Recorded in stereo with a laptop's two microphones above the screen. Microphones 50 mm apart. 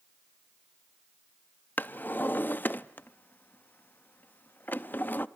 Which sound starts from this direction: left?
A drawer, at 1.8 s.